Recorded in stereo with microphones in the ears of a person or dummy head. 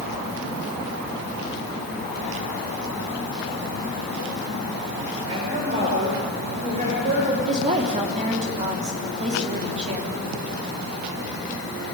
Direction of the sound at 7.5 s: 35° right (ahead or behind).